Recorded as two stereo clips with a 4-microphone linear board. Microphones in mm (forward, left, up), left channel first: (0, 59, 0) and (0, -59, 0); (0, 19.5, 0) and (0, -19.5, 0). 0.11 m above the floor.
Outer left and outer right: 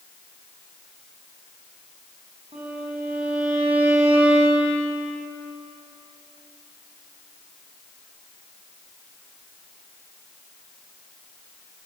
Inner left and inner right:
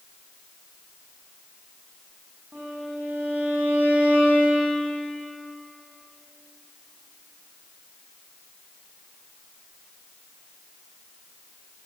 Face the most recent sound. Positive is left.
turn(degrees=-60)  # may be behind; listen again after turning